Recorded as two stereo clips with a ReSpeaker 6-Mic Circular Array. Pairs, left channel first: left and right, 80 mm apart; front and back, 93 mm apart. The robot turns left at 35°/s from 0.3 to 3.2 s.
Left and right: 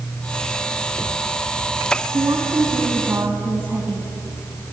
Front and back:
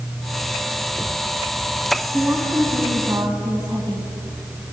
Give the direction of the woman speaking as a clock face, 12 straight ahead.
4 o'clock.